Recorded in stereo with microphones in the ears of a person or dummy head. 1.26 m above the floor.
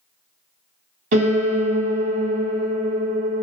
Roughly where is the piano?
Right.